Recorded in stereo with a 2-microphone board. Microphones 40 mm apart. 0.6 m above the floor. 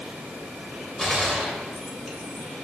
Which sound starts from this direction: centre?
A gunshot, at 1.0 s.